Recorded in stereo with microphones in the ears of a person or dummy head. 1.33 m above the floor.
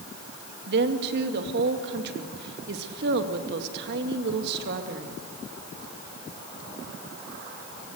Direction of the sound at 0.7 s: 55° right (ahead or behind).